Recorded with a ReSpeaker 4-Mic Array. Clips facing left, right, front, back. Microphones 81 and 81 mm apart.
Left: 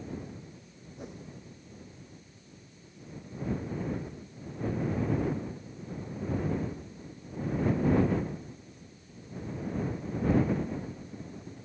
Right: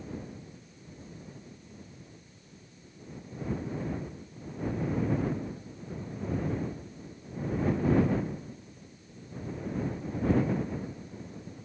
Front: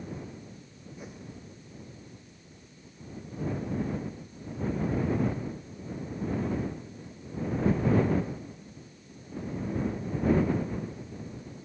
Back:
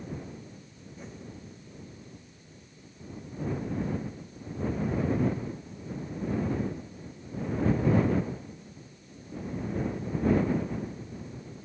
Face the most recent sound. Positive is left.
turn(degrees=80)